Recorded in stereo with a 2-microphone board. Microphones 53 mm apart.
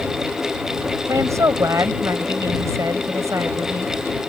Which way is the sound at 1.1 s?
70° right (ahead or behind).